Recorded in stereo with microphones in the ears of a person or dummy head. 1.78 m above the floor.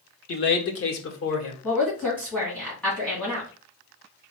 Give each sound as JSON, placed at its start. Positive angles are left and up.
{"t": 0.3, "sound": "a man speaking", "side_deg": 40, "distance_m": 0.7}
{"t": 1.6, "sound": "a woman speaking", "side_deg": 5, "distance_m": 2.0}